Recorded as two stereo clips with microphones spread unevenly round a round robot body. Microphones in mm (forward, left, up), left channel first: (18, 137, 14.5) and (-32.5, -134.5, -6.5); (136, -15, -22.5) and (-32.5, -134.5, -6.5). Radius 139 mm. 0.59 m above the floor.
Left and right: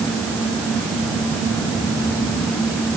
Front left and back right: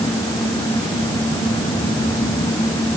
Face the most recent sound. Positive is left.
No sound to turn to.